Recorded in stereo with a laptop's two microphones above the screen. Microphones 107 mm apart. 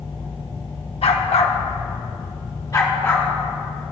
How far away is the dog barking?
About 1.1 m.